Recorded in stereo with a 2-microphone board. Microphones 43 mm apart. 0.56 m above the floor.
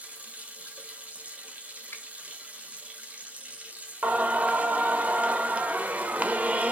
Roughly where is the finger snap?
Left.